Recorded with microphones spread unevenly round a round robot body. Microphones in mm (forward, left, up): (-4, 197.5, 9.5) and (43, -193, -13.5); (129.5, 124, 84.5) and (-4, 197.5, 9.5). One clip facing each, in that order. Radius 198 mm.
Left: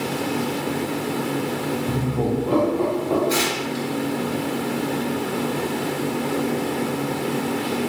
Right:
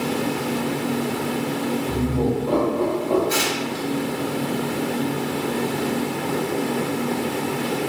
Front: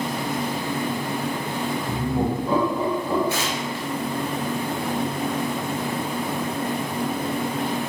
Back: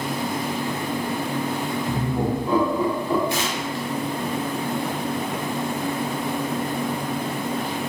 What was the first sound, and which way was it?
Laughter, 40° left.